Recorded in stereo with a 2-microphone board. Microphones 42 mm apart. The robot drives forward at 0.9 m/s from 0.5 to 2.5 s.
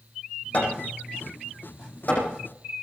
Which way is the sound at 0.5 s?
35° left (ahead or behind).